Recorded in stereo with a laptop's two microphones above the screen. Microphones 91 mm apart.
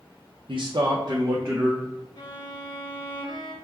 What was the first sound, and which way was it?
A man speaking, 65° right (ahead or behind).